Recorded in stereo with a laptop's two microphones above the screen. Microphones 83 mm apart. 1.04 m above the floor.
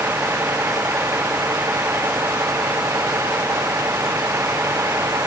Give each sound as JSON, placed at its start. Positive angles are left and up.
{"t": 0.0, "sound": "a vehicle", "side_deg": -25}